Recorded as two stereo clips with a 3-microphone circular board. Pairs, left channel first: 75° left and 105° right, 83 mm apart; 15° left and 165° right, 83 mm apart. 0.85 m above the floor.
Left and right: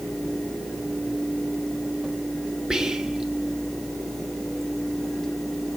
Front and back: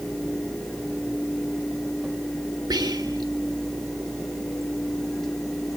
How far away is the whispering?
About 1.2 m.